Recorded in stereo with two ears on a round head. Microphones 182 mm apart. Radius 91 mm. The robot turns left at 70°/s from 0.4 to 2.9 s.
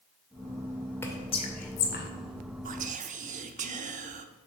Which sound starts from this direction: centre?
Whispering, at 1.0 s.